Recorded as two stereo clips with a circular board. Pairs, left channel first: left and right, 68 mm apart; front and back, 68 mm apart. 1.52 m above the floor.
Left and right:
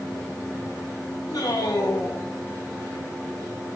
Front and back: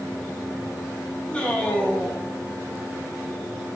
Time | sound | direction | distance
1.3 | a man speaking | 70° left | 3 m